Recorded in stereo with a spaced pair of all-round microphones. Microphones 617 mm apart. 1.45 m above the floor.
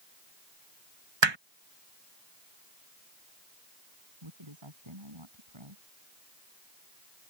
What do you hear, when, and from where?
1.2 s hammering: 45° right (ahead or behind)
4.2 s a woman speaking: 50° right (ahead or behind)